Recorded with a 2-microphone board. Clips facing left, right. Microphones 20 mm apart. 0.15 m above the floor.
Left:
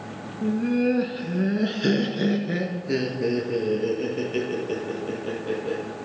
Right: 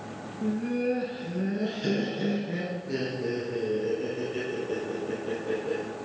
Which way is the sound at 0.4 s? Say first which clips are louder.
Left 5 dB; 20° left (ahead or behind).